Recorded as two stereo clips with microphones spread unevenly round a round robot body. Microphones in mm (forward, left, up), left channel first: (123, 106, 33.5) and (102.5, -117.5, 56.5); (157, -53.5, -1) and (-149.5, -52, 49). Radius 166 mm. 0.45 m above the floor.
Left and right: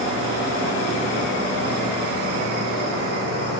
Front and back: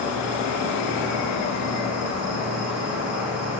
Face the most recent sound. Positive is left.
turn(degrees=45)